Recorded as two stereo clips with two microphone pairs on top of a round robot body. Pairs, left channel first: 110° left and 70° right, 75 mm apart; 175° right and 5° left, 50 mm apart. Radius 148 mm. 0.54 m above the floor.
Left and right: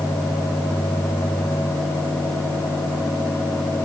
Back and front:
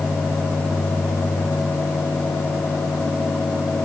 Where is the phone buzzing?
No phone buzzing in this recording.